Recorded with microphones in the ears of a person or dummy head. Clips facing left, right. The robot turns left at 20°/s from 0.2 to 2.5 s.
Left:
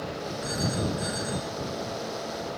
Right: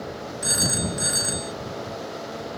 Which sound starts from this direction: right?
A phone ringing, at 0.4 s.